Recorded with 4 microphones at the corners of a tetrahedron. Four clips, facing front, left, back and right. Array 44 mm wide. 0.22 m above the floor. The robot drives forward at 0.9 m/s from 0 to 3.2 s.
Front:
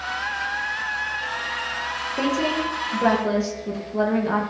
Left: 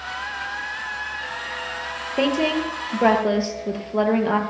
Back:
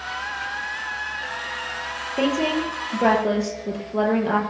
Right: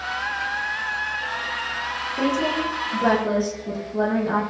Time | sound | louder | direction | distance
2.2 | a woman speaking | left 2 dB, back 2 dB | 100° left | 5.5 m